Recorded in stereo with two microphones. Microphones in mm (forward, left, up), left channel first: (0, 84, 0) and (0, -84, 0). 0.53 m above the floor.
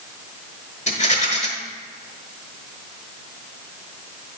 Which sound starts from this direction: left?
A rattle, at 0.9 s.